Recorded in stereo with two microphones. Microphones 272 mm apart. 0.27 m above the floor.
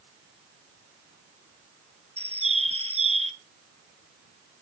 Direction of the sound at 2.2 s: 20° right (ahead or behind).